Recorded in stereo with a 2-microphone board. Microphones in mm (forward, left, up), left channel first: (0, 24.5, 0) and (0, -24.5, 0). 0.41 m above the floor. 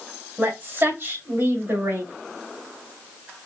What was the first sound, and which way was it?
A woman speaking, 45° right (ahead or behind).